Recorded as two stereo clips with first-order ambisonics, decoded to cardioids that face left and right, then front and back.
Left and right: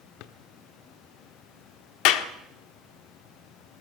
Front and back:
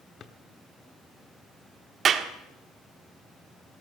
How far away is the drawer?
About 1.3 m.